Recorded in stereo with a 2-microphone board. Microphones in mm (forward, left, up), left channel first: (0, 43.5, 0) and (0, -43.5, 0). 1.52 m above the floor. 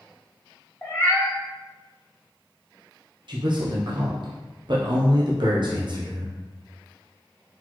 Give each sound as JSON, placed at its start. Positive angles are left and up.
{"t": 0.8, "sound": "a cat meowing", "side_deg": 15, "distance_m": 1.6}
{"t": 3.3, "sound": "a man speaking", "side_deg": -60, "distance_m": 0.7}